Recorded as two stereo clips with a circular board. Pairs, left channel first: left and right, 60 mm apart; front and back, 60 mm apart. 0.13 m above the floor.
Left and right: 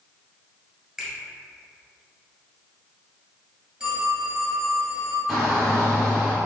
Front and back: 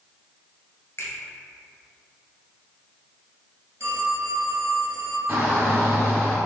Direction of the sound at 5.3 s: 165° right.